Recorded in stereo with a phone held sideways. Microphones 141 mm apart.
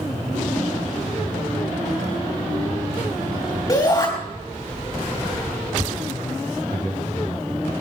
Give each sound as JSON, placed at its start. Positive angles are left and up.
{"t": 3.7, "sound": "a shout", "side_deg": 30, "distance_m": 2.0}
{"t": 6.7, "sound": "a man speaking", "side_deg": 25, "distance_m": 7.5}